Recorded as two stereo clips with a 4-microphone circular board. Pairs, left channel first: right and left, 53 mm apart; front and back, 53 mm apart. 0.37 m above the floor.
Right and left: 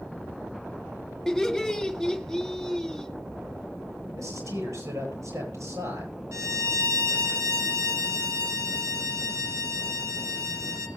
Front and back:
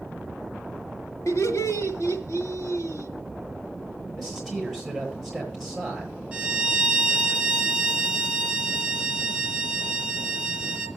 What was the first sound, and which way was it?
Laughter, straight ahead.